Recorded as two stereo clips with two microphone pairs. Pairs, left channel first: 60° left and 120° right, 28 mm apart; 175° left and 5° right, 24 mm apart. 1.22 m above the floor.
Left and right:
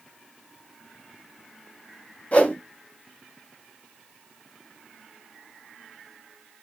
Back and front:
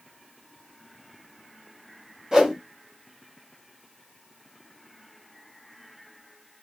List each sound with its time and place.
2.3 s a whoosh: 55° left, 1.4 m